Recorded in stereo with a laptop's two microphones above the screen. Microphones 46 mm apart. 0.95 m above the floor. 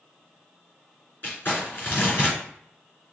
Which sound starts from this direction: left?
Crumpling, at 1.2 s.